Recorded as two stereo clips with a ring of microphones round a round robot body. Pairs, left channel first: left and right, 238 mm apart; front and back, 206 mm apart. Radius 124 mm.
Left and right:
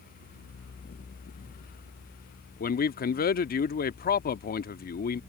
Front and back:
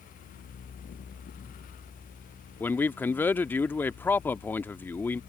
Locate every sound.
2.6 s a man speaking: 75° left